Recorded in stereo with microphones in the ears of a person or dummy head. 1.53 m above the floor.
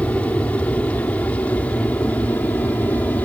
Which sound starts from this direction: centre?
An aircraft, at 0.0 s.